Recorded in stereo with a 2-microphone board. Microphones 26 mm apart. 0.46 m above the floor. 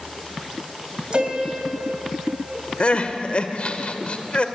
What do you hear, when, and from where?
1.1 s a piano: 35° right (ahead or behind), 3.5 m
2.8 s crying: 50° left (ahead or behind), 1.4 m